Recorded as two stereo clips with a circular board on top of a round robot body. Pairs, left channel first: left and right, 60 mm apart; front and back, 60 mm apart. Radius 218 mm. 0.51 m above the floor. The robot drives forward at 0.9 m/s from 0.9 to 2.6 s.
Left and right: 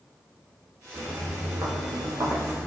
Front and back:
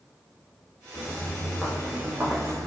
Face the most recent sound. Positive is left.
turn(degrees=-145)